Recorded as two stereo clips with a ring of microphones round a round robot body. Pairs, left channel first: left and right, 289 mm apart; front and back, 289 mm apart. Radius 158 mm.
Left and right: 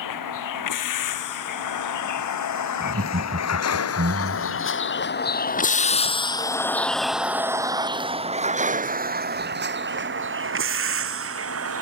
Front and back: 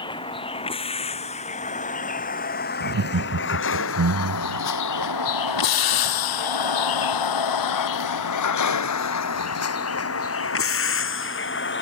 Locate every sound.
0.0 s a vehicle: 75° left; by 11.8 s 50° right
2.8 s laughter: 150° right